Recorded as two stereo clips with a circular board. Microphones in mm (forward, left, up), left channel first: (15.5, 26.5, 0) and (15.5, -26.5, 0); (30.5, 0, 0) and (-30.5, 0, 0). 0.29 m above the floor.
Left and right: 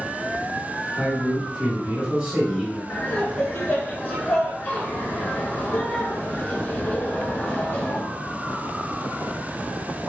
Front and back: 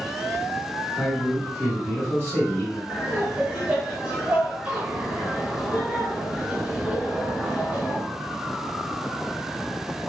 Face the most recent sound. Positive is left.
turn(degrees=125)